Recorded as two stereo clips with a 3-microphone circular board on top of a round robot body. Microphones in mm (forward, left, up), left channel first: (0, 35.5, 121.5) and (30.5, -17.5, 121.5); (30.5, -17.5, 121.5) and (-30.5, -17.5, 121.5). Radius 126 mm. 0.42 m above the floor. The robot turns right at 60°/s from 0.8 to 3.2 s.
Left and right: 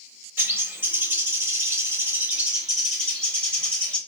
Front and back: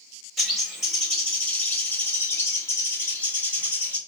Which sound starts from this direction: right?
A bird, at 0.4 s.